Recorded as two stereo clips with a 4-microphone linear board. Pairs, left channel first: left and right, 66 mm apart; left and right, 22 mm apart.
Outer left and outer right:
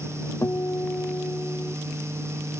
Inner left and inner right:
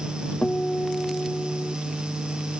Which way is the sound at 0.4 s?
45° left (ahead or behind).